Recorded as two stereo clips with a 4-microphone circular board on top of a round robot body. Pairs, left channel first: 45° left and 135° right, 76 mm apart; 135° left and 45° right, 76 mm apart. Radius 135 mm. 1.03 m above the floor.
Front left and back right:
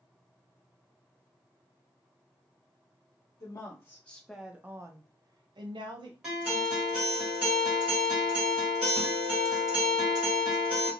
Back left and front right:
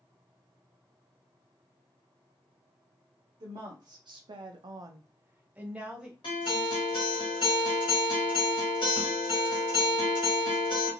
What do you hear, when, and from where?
3.4 s a woman speaking: 5° right, 0.9 m; by 6.1 s 125° right, 1.1 m
6.2 s a guitar: 145° left, 1.5 m